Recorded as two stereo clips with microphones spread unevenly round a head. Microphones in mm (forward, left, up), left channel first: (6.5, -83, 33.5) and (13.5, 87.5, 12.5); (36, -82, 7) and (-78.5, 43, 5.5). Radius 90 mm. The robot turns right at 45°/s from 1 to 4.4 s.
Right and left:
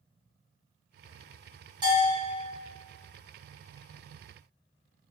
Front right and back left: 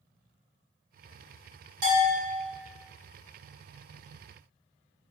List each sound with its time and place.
1.8 s a bell: 150° left, 1.4 m; by 2.4 s straight behind, 1.4 m